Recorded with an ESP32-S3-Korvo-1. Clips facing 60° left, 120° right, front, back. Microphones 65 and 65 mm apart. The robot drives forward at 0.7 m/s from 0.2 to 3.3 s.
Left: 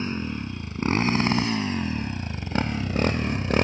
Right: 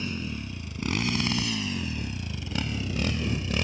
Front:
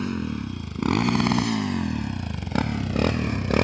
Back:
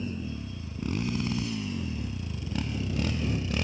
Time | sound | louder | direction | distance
0.0 | a motorcycle | left 4 dB, front 7 dB | 5° left | ?